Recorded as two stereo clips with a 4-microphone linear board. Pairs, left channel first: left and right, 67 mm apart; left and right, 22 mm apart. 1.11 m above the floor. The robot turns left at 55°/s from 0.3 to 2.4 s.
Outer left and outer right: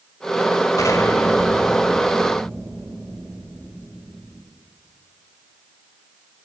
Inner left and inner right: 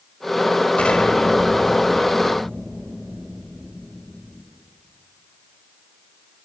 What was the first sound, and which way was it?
An explosion, 60° left.